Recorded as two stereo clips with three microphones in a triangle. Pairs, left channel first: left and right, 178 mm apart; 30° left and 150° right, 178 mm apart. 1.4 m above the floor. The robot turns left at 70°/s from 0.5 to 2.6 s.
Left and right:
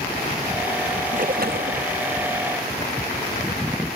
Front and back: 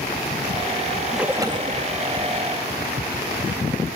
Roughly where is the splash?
Ahead right.